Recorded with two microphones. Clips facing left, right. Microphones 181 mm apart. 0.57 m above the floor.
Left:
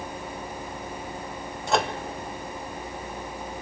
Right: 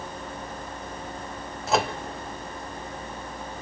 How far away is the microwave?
About 1.3 m.